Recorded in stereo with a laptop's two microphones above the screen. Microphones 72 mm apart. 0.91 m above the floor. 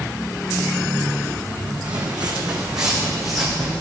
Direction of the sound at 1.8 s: 75° right (ahead or behind).